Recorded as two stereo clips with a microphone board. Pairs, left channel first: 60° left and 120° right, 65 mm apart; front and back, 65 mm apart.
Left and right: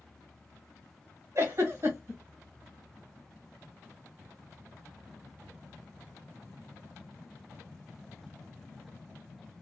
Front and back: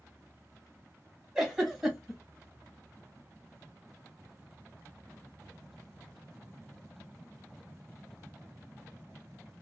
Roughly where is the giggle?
Right.